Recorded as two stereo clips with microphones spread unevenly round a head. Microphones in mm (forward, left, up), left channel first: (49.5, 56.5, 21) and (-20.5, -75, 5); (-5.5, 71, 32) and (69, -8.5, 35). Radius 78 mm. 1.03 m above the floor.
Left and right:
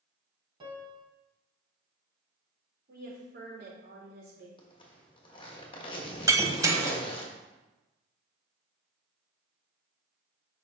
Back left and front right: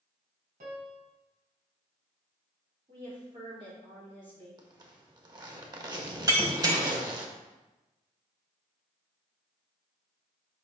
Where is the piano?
60° right, 1.9 m.